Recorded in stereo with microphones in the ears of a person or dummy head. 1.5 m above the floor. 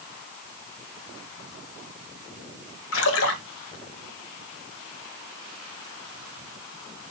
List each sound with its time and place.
2.9 s a splash: 70° left (ahead or behind), 1.1 m